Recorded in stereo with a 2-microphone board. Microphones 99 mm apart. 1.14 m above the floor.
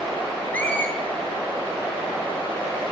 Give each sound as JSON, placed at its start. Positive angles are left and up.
{"t": 0.5, "sound": "a squeak", "side_deg": 15, "distance_m": 8.5}